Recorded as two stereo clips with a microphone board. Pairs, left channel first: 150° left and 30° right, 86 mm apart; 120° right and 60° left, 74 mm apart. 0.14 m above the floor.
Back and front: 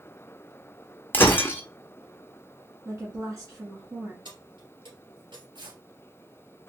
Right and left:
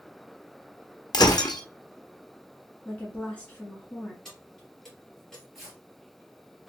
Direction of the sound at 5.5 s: 25° right.